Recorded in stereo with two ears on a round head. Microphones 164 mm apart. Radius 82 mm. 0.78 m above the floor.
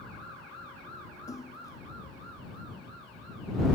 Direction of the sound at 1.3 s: 20° left (ahead or behind).